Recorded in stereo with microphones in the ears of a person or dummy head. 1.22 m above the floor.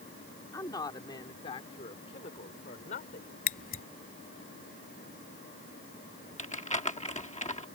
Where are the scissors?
45° left (ahead or behind).